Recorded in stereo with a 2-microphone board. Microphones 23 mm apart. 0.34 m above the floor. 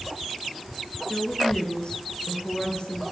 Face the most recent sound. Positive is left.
turn(degrees=55)  # may be behind; listen again after turning